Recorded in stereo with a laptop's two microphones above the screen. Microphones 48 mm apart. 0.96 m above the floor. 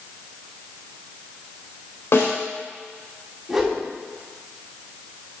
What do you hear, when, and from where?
2.1 s a snare drum: 60° left (ahead or behind), 3.5 m
3.5 s a whoosh: 10° right (ahead or behind), 2 m